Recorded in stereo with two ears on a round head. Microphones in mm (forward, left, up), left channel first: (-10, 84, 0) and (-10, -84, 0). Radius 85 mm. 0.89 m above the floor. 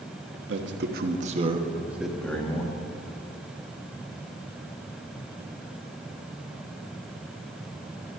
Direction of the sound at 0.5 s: 65° right (ahead or behind).